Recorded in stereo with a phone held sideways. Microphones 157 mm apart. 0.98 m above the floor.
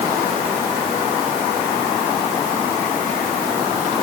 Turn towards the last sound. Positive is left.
No sound to turn to.